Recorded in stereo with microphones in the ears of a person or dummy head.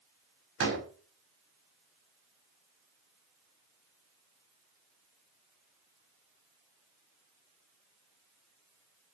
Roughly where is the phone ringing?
I don't hear a phone ringing.